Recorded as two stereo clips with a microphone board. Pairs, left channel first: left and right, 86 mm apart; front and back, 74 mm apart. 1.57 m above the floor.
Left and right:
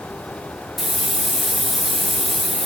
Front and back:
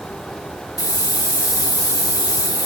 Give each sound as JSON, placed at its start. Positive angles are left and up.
{"t": 0.8, "sound": "a hiss", "azimuth_deg": 0, "distance_m": 1.1}